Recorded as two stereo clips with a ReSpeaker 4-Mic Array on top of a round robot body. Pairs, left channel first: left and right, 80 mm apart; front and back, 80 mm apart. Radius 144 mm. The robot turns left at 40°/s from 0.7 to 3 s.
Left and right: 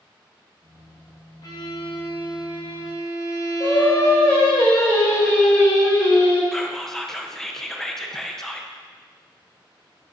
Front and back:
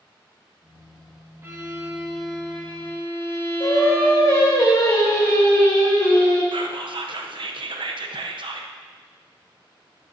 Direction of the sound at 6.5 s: 175° left.